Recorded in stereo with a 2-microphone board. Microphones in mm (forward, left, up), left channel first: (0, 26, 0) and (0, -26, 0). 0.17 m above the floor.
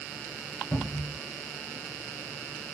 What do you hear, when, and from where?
0.7 s a cupboard door: 35° left (ahead or behind), 1.7 m